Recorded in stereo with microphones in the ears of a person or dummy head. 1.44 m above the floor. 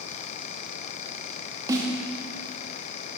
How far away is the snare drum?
About 1.6 m.